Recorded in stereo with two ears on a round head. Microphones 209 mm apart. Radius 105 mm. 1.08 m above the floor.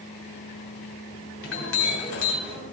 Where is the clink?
60° left (ahead or behind), 3 m.